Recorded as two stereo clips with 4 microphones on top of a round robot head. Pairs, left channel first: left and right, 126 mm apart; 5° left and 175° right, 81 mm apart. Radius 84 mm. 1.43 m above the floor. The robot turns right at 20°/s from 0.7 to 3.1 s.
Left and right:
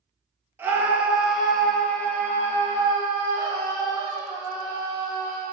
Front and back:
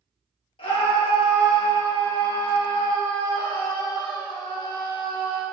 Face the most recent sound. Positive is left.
turn(degrees=30)